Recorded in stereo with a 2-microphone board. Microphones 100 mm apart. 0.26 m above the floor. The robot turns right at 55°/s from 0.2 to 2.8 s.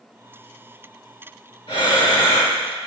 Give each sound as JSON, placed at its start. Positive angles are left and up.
{"t": 1.7, "sound": "breathing", "azimuth_deg": 100, "distance_m": 1.7}